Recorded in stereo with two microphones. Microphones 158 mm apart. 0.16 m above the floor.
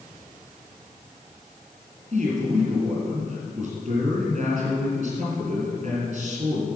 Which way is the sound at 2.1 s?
45° right (ahead or behind).